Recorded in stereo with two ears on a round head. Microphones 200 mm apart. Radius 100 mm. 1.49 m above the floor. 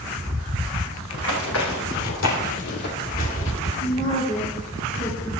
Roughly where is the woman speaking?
Left.